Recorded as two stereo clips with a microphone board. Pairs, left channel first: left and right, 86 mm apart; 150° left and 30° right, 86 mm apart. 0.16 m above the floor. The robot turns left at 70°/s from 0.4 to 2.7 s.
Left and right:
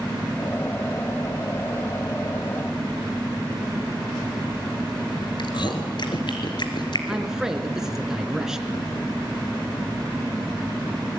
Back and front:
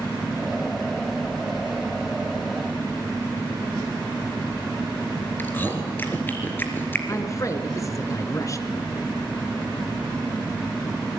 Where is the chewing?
85° left, 2.5 m.